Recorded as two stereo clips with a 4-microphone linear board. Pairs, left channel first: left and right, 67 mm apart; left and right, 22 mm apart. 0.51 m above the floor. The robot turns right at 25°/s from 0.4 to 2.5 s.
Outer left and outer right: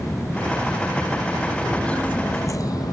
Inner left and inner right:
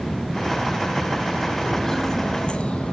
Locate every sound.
1.6 s footsteps: 10° left (ahead or behind), 1.2 m; by 2.9 s 70° left (ahead or behind), 1.2 m